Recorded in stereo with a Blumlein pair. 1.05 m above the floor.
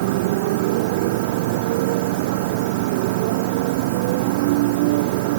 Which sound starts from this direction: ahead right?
A motorcycle, at 0.0 s.